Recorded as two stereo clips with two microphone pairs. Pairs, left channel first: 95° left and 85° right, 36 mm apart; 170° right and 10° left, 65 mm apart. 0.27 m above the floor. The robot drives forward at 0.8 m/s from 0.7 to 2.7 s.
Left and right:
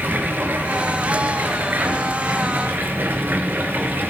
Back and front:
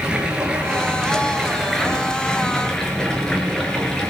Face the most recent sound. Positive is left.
turn(degrees=-90)